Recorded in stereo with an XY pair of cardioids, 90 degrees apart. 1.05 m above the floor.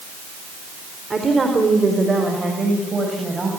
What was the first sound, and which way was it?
A woman speaking, 35° right.